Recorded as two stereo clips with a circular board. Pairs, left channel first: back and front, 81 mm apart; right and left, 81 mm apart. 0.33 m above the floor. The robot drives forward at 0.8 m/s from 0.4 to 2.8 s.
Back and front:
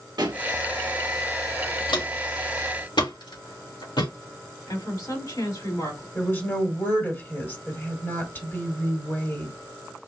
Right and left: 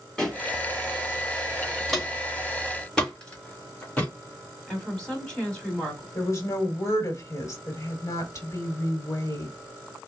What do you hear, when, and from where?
0.2 s a pop: 10° right, 2 m
1.9 s footsteps: straight behind, 3 m; by 4.1 s 165° right, 2.5 m
4.7 s a woman speaking: 170° right, 2.5 m
6.2 s a woman speaking: 125° right, 1.7 m